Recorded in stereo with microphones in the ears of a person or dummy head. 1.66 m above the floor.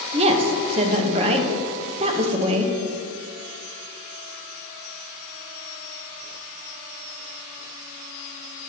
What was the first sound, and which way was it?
A woman speaking, 35° right (ahead or behind).